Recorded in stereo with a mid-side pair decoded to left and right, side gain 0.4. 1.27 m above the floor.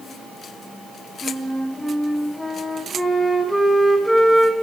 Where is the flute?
5° left, 1.7 m.